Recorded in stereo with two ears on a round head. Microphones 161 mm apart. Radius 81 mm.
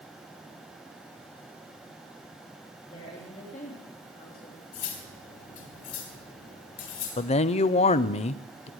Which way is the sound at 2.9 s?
30° left (ahead or behind).